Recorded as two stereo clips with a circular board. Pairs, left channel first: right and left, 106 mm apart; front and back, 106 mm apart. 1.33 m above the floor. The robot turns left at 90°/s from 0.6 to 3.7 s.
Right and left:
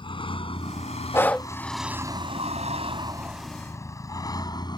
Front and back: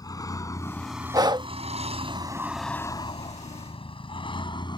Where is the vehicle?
55° right; by 4.8 s 45° right.